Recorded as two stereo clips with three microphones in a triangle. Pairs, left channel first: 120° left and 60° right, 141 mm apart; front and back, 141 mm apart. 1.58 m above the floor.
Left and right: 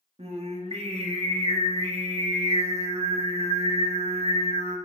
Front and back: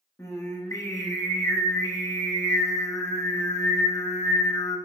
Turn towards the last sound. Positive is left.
turn(degrees=-60)